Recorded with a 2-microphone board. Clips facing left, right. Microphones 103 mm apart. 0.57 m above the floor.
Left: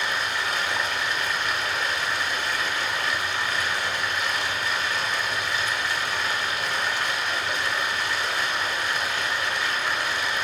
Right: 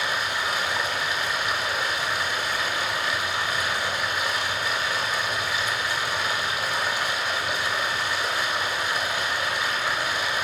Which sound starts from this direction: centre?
Running water, at 0.0 s.